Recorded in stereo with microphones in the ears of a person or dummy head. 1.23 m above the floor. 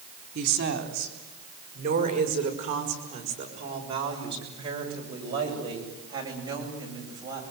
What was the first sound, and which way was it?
A woman speaking, 60° right (ahead or behind).